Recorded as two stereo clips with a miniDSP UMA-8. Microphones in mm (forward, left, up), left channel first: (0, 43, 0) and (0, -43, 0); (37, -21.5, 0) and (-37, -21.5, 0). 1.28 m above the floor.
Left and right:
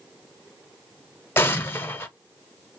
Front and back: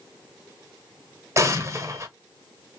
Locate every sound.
1.4 s an explosion: 145° left, 0.7 m